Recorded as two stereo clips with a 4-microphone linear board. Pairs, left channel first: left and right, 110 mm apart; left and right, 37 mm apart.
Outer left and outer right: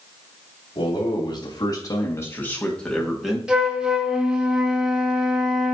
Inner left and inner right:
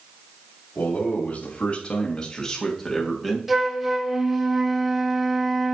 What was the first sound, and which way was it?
A man speaking, 55° left (ahead or behind).